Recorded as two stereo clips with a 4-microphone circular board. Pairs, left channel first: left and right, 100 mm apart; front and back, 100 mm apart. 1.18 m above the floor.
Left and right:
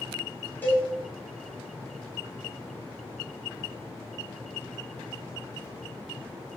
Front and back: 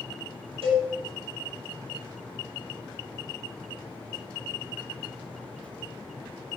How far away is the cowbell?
About 2.5 m.